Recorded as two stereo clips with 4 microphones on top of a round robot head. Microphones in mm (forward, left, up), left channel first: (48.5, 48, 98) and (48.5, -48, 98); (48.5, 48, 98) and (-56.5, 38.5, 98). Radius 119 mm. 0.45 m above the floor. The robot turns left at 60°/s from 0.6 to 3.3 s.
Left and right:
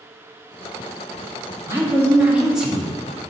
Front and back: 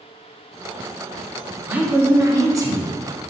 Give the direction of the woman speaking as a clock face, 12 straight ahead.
4 o'clock.